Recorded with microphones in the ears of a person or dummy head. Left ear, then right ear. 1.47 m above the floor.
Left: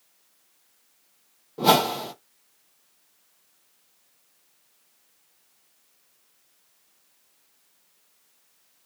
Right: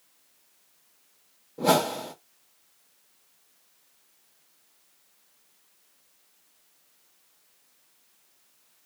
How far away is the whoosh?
About 0.9 m.